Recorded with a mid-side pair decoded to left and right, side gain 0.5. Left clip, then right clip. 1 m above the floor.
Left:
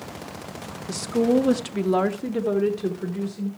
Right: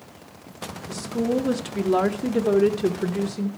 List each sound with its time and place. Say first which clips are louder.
0.9 s a woman speaking: left 4 dB; 40° left, 1.1 m; by 3.5 s 55° right, 1.2 m